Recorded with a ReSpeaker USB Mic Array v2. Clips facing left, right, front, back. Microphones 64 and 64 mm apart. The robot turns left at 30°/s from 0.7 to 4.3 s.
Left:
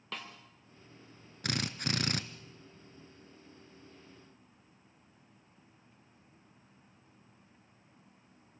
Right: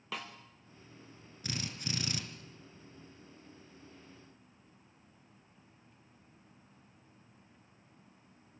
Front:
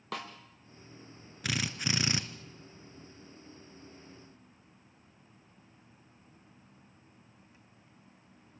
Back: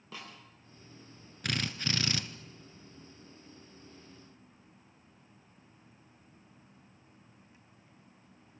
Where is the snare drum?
5° right, 4 m.